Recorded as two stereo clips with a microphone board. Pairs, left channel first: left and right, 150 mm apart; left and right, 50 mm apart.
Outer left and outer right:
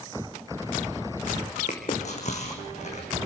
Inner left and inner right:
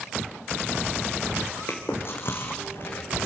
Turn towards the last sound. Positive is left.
turn(degrees=50)  # may be behind; listen again after turning